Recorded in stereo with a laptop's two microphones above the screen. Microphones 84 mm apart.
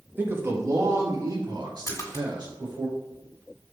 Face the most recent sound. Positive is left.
turn(degrees=40)  # may be behind; listen again after turning